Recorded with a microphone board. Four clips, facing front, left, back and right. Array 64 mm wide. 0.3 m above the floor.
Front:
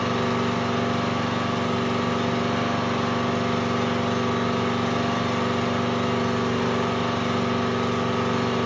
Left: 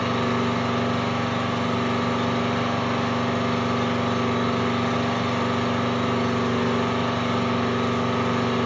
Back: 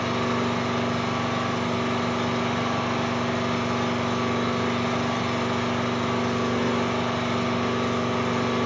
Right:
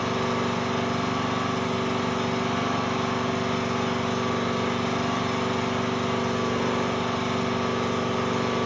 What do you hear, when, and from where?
0.0 s an engine running: 70° left, 1.1 m